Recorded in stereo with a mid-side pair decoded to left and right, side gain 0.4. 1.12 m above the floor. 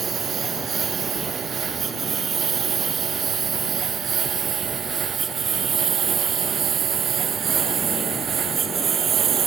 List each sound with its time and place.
0.0 s a lawn mower: 50° right; by 9.5 s 60° right